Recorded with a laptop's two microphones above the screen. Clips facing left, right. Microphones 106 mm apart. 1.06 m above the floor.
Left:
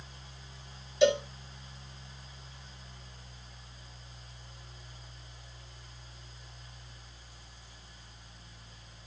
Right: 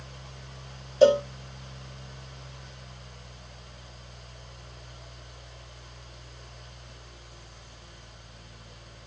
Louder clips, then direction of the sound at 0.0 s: Right 6 dB; 70° right (ahead or behind).